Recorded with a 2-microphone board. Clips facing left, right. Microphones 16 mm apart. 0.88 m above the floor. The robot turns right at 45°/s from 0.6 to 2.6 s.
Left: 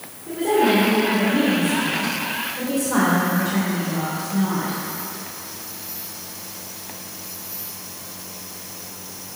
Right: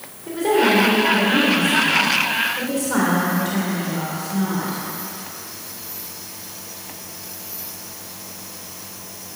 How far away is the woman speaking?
About 2.5 m.